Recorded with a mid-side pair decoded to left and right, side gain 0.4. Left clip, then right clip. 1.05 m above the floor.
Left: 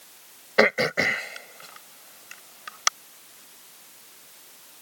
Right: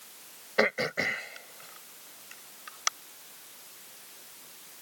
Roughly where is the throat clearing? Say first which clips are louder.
Left 7 dB; ahead left.